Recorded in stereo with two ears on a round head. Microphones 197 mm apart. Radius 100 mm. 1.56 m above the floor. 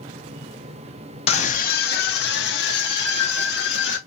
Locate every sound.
1.3 s a scream: 25° left (ahead or behind), 0.5 m; by 4.0 s 55° left (ahead or behind), 1.6 m